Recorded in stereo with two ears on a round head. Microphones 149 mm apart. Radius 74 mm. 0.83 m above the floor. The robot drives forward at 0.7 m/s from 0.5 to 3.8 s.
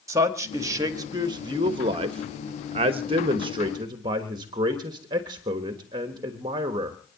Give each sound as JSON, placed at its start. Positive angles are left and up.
{"t": 0.1, "sound": "a man speaking", "side_deg": -20, "distance_m": 1.8}